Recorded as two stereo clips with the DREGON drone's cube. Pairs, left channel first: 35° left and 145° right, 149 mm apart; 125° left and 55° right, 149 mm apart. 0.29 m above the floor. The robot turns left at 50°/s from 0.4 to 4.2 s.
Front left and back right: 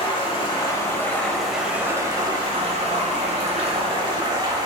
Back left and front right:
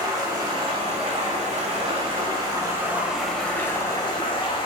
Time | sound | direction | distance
0.0 | running water | 5° right | 1.1 m